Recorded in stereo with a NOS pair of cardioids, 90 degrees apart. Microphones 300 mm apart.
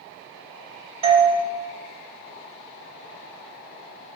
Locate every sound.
1.0 s a doorbell: 15° right, 0.8 m